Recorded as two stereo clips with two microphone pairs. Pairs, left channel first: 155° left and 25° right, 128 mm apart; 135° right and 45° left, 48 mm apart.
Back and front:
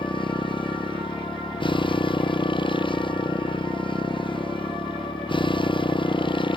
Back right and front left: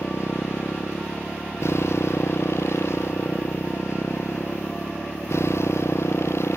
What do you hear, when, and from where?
0.0 s a motorcycle: 155° right